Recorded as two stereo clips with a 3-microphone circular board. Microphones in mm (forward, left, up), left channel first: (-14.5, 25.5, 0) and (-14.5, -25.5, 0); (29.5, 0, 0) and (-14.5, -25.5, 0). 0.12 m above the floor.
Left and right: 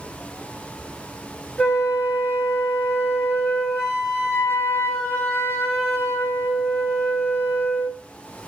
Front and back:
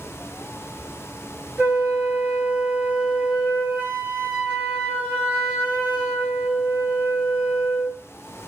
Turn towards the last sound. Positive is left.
turn(degrees=160)